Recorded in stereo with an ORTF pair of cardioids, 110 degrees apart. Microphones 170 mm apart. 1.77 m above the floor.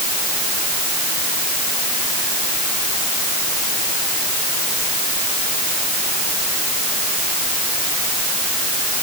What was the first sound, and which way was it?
Only background noise.